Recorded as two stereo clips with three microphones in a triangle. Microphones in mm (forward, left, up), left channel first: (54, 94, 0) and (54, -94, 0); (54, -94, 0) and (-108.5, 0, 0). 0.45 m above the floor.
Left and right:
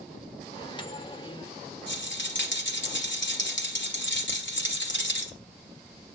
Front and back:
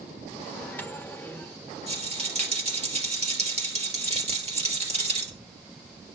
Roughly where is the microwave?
Ahead left.